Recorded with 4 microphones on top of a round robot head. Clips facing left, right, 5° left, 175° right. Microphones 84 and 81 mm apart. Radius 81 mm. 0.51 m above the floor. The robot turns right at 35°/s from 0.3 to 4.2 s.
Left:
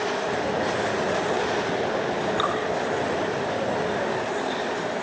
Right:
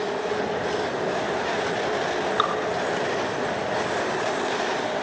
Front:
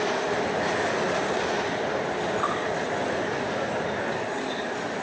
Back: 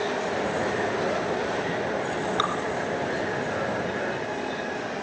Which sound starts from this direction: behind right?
Dripping, at 2.4 s.